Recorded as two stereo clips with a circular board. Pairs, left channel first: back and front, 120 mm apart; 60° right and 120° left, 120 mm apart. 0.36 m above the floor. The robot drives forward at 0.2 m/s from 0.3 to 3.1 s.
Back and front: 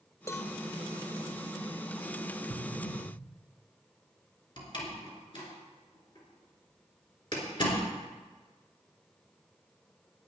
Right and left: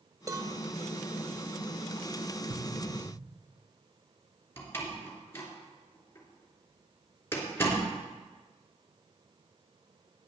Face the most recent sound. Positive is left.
turn(degrees=-130)